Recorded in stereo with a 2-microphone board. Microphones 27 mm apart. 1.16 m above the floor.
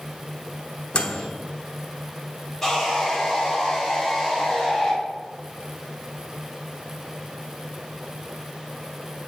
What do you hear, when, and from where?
0.9 s a microwave: 40° left (ahead or behind), 0.7 m
2.6 s sawing: 5° left (ahead or behind), 1.8 m